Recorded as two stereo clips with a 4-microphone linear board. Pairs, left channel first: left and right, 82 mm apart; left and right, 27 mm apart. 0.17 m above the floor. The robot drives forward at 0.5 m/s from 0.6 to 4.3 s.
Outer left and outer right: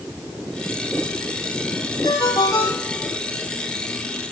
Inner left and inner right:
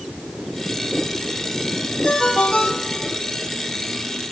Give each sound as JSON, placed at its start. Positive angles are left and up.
{"t": 2.0, "sound": "a ringtone", "side_deg": 50, "distance_m": 3.0}